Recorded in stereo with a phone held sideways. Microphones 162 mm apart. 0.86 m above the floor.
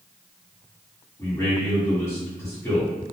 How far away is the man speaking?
About 1.8 m.